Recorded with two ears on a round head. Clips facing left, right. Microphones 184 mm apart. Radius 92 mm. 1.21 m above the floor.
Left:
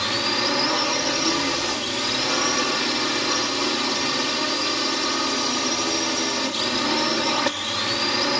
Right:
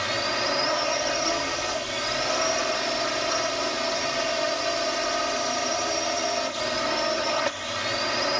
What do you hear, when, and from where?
0.0 s a drone: 70° left (ahead or behind)